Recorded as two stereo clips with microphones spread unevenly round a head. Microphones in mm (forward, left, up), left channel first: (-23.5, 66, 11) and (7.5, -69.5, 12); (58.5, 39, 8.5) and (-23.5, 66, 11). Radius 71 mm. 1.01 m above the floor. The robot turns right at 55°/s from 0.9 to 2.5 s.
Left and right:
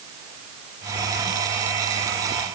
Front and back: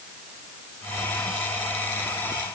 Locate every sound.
Only background noise.